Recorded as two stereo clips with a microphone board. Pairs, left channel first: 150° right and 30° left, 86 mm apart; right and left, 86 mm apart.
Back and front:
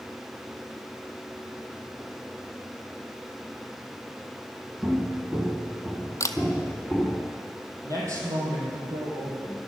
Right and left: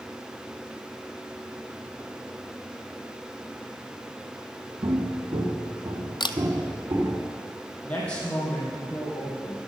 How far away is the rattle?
I don't hear a rattle.